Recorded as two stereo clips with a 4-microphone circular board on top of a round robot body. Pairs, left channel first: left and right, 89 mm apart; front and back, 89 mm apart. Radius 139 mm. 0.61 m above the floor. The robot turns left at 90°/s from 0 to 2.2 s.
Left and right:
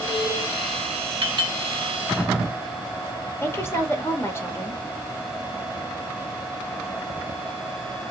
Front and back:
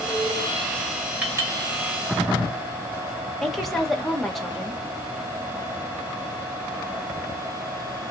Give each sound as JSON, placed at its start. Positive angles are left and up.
{"t": 1.2, "sound": "a clink", "azimuth_deg": -105, "distance_m": 2.0}
{"t": 3.4, "sound": "a woman speaking", "azimuth_deg": 90, "distance_m": 1.2}